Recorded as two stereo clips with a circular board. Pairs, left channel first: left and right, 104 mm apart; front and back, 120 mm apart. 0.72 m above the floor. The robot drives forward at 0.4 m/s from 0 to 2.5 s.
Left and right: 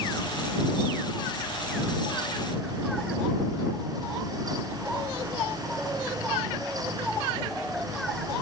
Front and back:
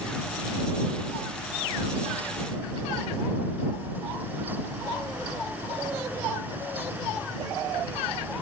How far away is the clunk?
I don't hear a clunk.